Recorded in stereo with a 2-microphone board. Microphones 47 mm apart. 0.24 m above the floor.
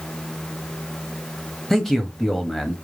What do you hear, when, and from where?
1.7 s a man speaking: 5° left (ahead or behind), 0.9 m